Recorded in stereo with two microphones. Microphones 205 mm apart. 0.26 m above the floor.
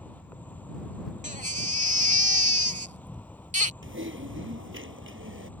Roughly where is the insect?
Centre.